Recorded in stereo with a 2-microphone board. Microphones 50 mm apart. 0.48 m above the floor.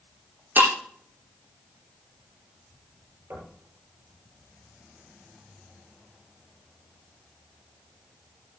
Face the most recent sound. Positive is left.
turn(degrees=-60)  # may be behind; listen again after turning